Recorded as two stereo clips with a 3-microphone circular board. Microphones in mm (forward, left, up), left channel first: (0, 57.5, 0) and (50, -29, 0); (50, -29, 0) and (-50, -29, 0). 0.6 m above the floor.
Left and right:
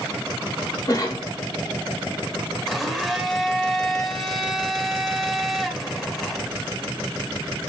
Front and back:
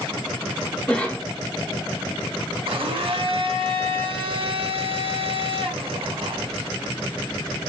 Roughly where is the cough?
Left.